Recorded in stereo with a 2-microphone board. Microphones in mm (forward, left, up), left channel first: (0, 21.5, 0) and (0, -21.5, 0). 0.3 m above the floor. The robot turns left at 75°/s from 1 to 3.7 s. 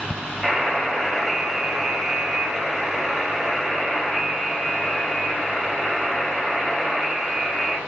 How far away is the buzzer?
About 1.8 m.